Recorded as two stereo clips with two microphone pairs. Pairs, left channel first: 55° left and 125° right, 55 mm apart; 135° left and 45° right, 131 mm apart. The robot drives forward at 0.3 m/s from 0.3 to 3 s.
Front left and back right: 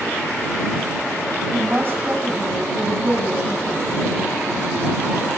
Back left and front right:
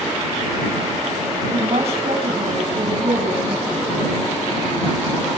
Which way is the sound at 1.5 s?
80° right.